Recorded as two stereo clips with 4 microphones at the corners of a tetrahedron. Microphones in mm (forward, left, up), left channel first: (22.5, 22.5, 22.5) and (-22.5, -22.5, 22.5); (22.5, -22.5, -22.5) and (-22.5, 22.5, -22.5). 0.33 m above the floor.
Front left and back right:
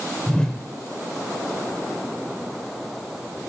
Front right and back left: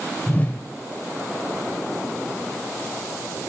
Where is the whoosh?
20° right, 0.6 m.